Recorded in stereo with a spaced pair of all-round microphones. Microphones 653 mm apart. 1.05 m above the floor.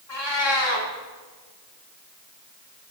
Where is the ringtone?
I don't hear a ringtone.